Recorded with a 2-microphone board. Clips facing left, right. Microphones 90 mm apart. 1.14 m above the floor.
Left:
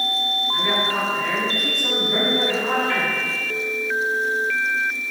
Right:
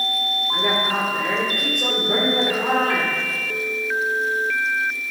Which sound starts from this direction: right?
A woman speaking, at 0.5 s.